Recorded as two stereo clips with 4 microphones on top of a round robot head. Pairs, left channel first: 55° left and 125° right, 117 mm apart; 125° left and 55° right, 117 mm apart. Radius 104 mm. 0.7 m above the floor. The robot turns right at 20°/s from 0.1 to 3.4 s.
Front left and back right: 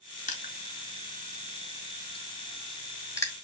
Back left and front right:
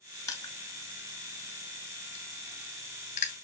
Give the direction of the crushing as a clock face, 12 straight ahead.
10 o'clock.